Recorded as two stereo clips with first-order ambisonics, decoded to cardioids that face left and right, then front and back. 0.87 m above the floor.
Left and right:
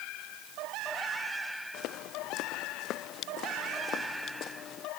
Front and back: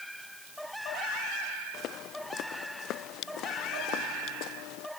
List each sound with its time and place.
1.7 s footsteps: 50° left; by 4.9 s 35° left